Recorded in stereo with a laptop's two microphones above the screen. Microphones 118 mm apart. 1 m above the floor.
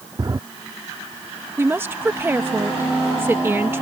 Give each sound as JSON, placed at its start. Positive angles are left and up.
{"t": 0.2, "sound": "a drawer", "side_deg": -35}
{"t": 1.6, "sound": "a woman speaking", "side_deg": -20}